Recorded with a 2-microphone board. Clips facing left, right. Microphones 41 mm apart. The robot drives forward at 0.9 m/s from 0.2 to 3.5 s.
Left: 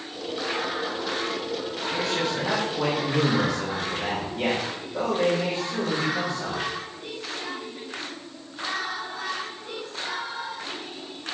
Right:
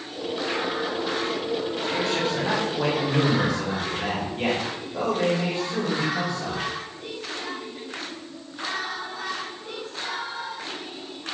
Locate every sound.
1.9 s a man speaking: 10° right (ahead or behind), 1.9 m; by 6.6 s 5° right (ahead or behind), 3.5 m